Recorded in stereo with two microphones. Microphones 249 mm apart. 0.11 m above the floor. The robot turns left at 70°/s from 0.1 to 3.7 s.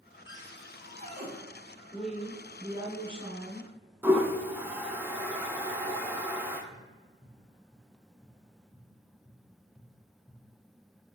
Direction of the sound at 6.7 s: 20° left (ahead or behind).